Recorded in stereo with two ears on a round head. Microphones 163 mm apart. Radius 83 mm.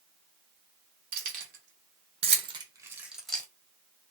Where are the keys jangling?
55° right (ahead or behind), 1.4 m; by 3.5 s 10° left (ahead or behind), 0.7 m.